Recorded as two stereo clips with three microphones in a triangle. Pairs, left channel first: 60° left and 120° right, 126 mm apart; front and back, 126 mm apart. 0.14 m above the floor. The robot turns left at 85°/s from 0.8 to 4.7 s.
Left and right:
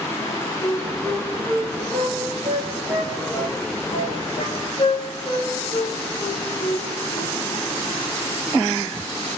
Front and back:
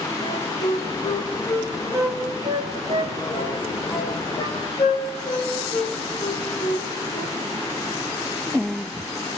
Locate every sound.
0.2 s a flute: 10° right, 5 m; by 7.3 s 20° left, 5 m